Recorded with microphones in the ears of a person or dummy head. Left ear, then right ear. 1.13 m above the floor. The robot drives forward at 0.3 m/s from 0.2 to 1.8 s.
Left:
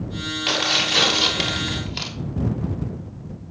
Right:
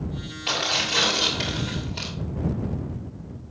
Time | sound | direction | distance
0.5 | tearing paper | 25° left (ahead or behind) | 3 m